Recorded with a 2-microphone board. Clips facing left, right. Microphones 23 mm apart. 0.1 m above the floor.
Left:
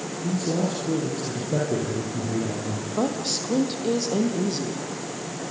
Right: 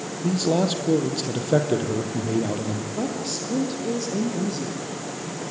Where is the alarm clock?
No alarm clock in this recording.